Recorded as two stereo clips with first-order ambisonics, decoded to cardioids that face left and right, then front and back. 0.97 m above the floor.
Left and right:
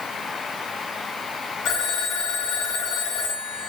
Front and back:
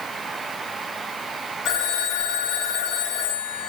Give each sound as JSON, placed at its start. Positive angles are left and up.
{"t": 1.6, "sound": "a phone ringing", "azimuth_deg": 50, "distance_m": 3.5}